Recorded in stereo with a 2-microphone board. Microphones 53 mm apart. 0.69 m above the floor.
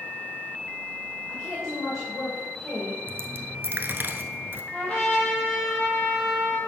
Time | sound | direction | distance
1.3 | a woman speaking | 5° left (ahead or behind) | 3 m
3.1 | a dropped coin | 45° right (ahead or behind) | 0.8 m
4.7 | a trumpet | 10° left (ahead or behind) | 5 m